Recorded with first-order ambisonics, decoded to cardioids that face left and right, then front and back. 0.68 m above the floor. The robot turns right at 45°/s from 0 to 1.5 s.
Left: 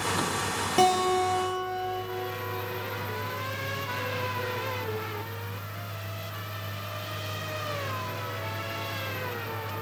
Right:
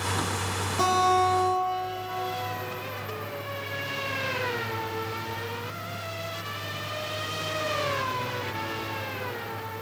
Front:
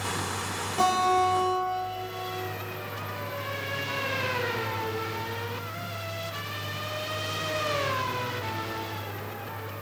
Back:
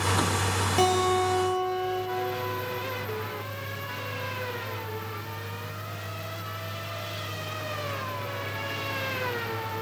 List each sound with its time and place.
0.8 s a guitar: 115° left, 3 m; by 2.0 s 150° left, 3 m